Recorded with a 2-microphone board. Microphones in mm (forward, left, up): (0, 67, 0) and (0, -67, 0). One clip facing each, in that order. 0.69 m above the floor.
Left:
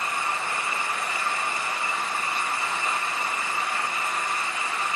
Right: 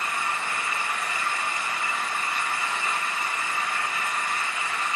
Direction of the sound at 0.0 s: 30° left (ahead or behind).